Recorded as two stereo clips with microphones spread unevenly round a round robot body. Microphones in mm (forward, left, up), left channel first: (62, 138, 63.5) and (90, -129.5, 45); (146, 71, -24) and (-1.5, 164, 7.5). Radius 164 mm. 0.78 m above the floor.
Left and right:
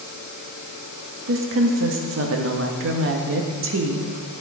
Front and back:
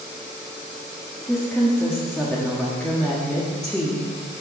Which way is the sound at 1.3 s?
115° right.